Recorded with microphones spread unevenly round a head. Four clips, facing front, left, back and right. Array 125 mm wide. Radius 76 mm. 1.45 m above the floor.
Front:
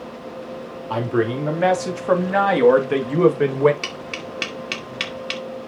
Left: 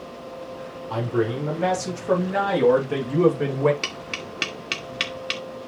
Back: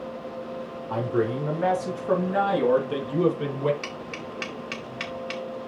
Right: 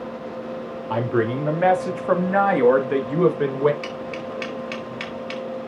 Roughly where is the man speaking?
Ahead right.